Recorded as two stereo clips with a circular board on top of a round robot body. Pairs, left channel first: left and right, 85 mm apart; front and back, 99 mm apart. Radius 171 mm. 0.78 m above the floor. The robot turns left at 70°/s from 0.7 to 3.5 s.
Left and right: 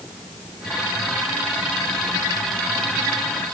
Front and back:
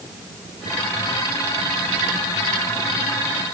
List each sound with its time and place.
Only background noise.